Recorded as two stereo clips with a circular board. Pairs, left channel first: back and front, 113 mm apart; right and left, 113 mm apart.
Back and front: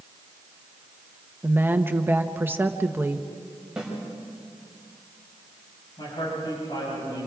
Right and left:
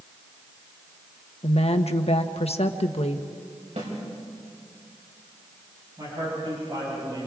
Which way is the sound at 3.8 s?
85° left.